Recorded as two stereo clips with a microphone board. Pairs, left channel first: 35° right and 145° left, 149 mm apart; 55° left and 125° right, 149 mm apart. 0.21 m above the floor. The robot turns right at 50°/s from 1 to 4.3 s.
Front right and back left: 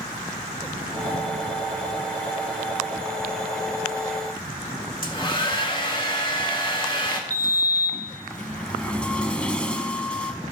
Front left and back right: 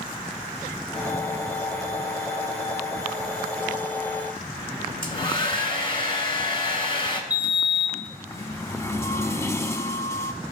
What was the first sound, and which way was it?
A hair dryer, 10° left.